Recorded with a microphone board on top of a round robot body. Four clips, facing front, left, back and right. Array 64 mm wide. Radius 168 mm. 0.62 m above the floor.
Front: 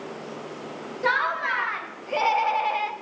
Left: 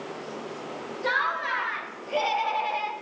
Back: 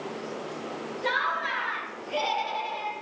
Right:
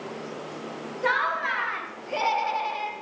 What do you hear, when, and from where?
1.0 s laughter: 45° right, 2.5 m; by 2.9 s 15° left, 1.0 m